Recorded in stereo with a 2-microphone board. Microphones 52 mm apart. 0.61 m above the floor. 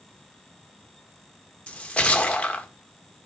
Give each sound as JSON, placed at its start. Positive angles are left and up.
{"t": 1.7, "sound": "a splash", "side_deg": 25, "distance_m": 1.4}